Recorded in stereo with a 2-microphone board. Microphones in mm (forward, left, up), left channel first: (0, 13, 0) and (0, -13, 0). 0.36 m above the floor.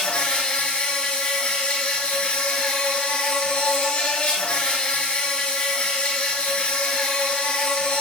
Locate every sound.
0.0 s an insect: 45° left (ahead or behind), 1.5 m